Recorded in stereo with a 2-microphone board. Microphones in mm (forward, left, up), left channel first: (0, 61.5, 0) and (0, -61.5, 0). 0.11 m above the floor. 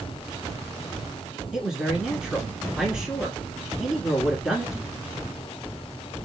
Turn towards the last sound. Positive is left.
turn(degrees=-5)  # may be behind; listen again after turning